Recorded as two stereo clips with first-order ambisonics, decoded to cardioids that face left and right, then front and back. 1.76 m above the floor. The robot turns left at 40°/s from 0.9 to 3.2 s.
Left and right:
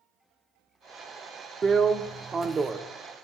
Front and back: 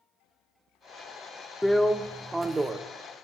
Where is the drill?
80° right, 0.6 m; by 2.8 s 125° right, 0.6 m.